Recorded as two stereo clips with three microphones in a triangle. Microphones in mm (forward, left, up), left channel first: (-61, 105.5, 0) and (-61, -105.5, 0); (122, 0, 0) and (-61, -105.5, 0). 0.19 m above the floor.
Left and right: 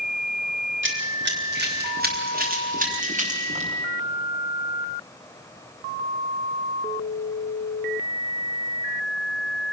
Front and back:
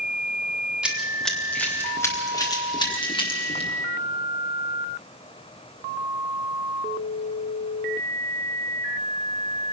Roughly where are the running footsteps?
Ahead right.